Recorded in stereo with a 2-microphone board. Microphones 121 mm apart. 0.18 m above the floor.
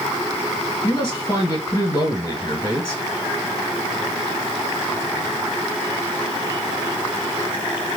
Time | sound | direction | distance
0.8 | a man speaking | 30° left (ahead or behind) | 1.6 m